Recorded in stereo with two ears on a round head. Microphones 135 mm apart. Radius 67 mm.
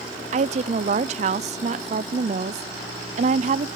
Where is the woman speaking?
45° right (ahead or behind), 0.5 m.